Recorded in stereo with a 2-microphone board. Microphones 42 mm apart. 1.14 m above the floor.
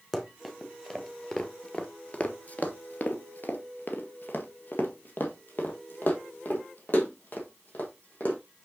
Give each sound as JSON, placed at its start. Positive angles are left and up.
{"t": 0.1, "sound": "running footsteps", "side_deg": 5, "distance_m": 1.9}